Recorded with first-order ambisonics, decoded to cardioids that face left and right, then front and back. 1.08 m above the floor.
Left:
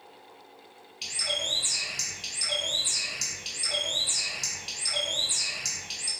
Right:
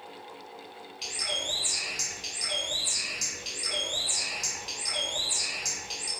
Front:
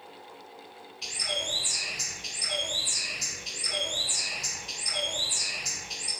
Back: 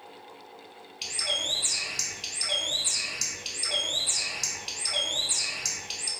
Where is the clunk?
I don't hear a clunk.